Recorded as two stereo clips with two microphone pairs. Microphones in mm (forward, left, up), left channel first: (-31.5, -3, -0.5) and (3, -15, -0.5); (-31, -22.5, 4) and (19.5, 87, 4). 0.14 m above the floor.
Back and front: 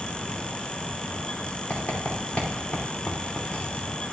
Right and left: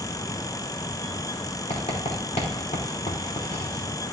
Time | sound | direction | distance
1.7 | writing | 145° right | 4.5 m